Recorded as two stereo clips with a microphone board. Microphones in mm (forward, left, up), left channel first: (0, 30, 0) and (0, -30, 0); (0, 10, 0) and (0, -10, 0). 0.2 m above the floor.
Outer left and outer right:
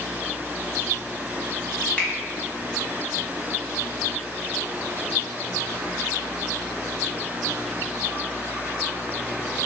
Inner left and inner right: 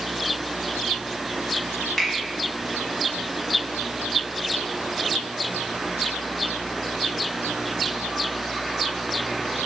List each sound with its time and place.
2.0 s a finger snap: 25° left (ahead or behind), 0.9 m